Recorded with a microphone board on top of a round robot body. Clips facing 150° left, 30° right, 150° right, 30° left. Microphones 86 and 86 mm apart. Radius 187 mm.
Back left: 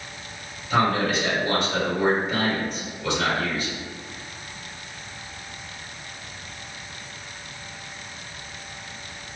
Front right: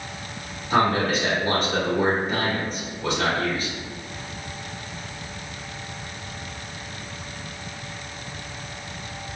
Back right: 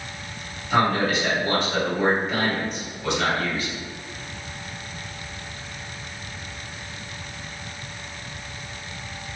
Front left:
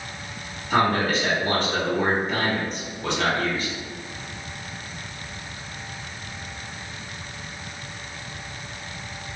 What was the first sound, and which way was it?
A man speaking, 5° right.